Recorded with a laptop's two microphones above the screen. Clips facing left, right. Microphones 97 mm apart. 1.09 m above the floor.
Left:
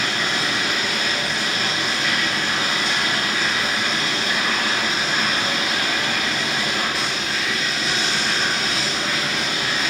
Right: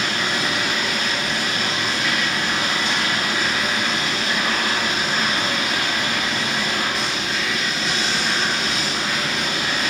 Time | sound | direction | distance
0.0 | running water | centre (ahead or behind) | 1.0 m